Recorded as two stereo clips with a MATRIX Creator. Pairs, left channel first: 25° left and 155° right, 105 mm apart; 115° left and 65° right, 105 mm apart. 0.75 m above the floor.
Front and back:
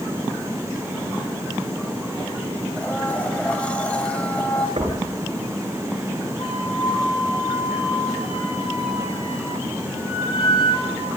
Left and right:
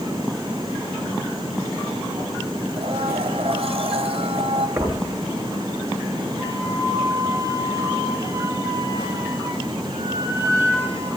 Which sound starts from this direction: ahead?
A flute, at 6.4 s.